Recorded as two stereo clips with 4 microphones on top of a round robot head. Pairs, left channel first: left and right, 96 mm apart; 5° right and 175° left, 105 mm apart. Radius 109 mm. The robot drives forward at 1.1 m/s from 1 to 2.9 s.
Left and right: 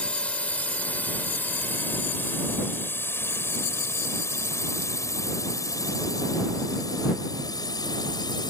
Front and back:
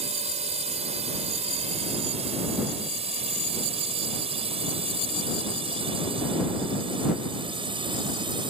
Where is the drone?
165° left; by 8.5 s 135° left.